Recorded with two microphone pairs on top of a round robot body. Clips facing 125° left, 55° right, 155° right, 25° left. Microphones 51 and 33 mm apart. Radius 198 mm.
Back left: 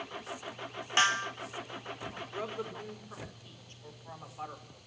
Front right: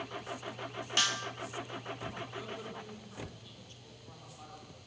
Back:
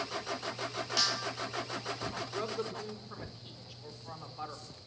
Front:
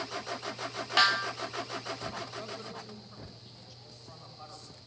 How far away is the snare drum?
About 0.8 m.